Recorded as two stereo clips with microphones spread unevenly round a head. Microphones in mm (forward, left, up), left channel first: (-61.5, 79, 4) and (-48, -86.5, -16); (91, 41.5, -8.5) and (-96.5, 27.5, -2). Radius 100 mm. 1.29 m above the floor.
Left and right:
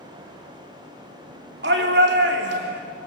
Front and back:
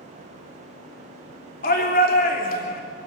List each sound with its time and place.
1.6 s a shout: 45° right, 3.5 m